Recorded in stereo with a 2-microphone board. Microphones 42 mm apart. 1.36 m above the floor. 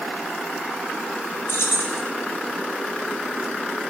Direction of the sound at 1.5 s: 75° left (ahead or behind).